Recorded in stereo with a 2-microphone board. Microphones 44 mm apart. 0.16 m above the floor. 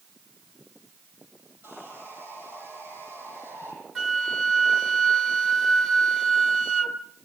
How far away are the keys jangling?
No keys jangling in this recording.